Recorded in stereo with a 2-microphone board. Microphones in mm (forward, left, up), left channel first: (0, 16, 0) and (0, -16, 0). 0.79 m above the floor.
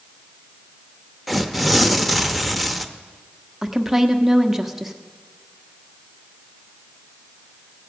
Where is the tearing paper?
Centre (ahead or behind), 0.7 m.